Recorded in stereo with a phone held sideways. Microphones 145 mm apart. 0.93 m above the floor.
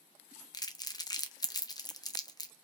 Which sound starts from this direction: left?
Crumpling, at 0.5 s.